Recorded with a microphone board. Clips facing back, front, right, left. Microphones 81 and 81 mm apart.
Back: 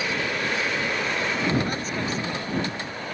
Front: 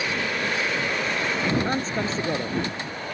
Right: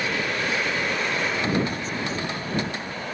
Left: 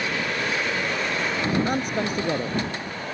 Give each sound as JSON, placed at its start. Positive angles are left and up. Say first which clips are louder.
{"t": 1.6, "sound": "a man speaking", "louder": "front 2 dB, left 4 dB", "azimuth_deg": 60}